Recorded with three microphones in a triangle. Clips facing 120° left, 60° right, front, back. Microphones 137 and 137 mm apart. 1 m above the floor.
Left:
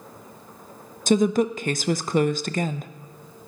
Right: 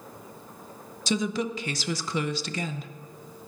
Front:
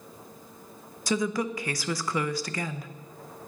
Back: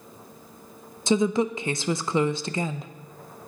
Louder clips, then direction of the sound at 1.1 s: Left 8 dB, back 6 dB; 125° left.